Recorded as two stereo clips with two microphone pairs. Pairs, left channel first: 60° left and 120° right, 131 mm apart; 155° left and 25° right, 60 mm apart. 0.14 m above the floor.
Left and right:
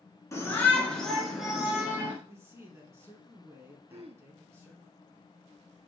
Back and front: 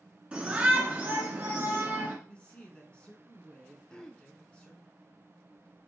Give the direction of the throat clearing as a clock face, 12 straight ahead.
4 o'clock.